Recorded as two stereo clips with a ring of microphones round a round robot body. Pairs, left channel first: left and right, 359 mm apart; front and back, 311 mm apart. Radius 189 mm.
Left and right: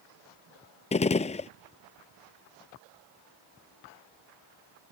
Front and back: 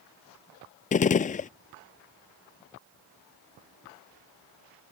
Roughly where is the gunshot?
Ahead left.